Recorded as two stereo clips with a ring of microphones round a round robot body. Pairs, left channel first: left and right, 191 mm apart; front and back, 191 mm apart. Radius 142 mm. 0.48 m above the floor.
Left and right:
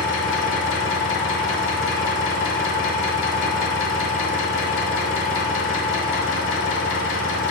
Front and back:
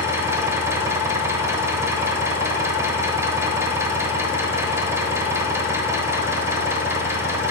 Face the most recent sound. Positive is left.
turn(degrees=105)